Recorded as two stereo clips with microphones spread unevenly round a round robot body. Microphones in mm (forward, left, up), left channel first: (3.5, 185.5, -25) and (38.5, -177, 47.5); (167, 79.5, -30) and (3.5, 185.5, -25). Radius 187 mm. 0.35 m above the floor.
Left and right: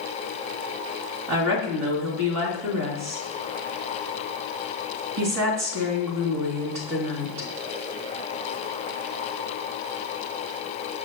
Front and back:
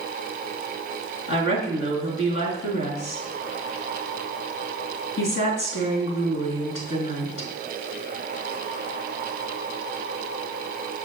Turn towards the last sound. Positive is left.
turn(degrees=-40)